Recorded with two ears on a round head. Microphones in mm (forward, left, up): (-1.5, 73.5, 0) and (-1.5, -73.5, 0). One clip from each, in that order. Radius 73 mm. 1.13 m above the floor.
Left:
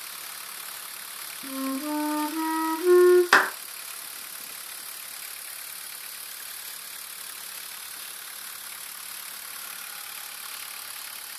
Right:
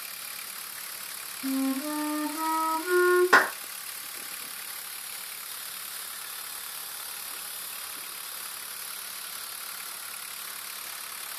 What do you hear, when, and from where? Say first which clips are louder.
1.4 s a flute: right 2 dB; 15° left (ahead or behind), 1.5 m
3.3 s a clap: left 1 dB; 75° left (ahead or behind), 0.9 m